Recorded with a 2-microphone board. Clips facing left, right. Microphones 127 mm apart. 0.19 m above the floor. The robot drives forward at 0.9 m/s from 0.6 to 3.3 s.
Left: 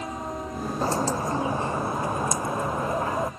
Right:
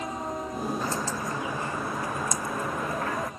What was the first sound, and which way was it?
A bird, 35° left (ahead or behind).